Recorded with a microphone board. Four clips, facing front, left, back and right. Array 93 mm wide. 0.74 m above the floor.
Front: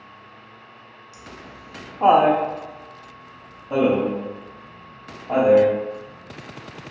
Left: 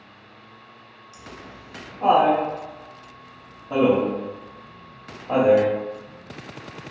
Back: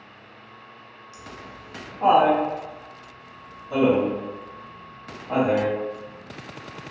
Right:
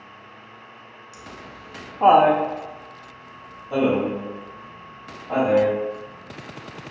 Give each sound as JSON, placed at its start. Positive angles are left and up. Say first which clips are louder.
{"t": 1.1, "sound": "laughter", "louder": "even, even", "azimuth_deg": -90, "distance_m": 0.9}